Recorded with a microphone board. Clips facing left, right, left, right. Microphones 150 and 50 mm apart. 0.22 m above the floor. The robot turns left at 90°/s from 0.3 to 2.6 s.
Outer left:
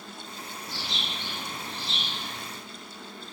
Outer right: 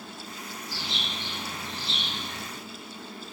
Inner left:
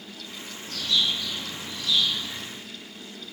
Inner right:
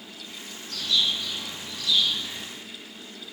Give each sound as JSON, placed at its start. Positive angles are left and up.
{"t": 0.7, "sound": "a bird", "azimuth_deg": 125, "distance_m": 1.9}